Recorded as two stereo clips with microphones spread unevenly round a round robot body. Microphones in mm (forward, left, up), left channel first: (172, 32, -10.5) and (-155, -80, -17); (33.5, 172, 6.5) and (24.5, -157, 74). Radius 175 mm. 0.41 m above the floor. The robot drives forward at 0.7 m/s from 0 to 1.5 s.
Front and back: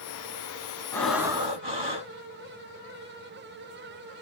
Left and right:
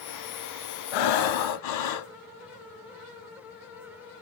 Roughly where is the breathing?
Left.